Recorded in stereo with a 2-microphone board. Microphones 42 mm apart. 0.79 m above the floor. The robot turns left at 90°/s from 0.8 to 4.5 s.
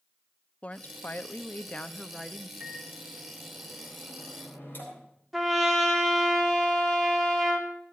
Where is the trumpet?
Centre (ahead or behind), 1.8 m.